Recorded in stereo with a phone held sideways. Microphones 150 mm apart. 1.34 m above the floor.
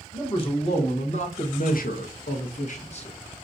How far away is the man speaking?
About 1.3 m.